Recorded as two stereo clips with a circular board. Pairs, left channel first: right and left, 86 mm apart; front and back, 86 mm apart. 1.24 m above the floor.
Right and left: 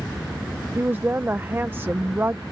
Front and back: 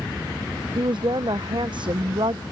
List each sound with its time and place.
0.8 s a woman speaking: 155° left